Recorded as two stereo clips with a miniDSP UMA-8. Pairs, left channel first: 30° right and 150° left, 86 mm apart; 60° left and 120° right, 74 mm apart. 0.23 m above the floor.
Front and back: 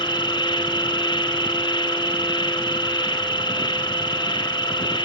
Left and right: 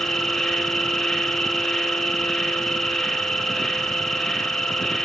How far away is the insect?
About 1.3 m.